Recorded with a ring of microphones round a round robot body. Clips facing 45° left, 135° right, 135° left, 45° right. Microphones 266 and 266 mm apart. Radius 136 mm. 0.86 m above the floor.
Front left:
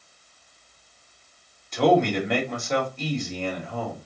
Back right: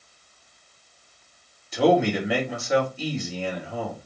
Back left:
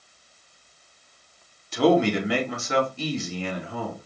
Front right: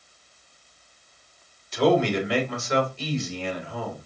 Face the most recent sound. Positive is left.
turn(degrees=140)